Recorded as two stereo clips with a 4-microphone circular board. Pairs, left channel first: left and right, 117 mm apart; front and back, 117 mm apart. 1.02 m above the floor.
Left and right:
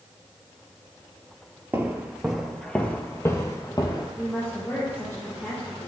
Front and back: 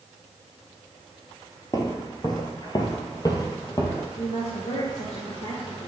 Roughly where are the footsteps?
Ahead right.